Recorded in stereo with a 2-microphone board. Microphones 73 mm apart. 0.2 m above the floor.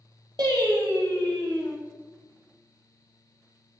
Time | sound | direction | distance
0.4 | singing | 70° right (ahead or behind) | 1.1 m